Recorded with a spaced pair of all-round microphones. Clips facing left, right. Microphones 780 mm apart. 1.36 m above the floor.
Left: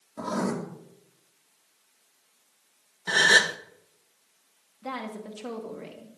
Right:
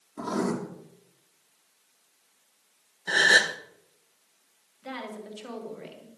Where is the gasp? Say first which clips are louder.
Left 1 dB; 40° left (ahead or behind), 0.9 m.